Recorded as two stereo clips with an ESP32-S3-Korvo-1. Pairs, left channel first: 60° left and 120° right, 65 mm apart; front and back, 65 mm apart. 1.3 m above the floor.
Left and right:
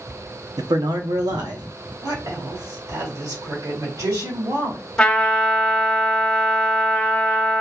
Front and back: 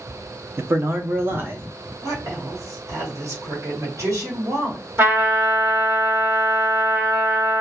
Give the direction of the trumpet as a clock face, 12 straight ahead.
7 o'clock.